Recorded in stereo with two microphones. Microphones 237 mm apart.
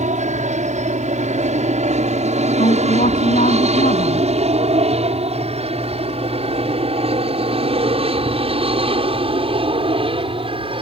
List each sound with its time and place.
0.0 s an aircraft: 30° right (ahead or behind); by 10.8 s 25° right (ahead or behind)
2.6 s a woman speaking: 35° left (ahead or behind)